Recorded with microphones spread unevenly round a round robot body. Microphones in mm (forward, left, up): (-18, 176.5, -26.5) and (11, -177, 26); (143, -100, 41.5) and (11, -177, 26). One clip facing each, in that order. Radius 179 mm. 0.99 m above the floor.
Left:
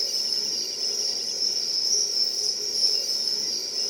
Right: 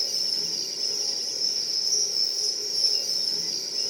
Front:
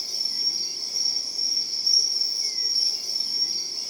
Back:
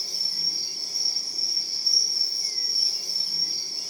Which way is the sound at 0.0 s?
Straight behind.